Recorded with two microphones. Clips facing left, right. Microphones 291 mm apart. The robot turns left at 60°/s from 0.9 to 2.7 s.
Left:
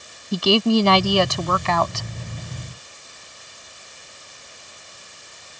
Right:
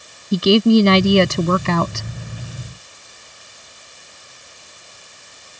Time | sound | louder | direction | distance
0.3 | a woman speaking | right 5 dB | 40° right | ?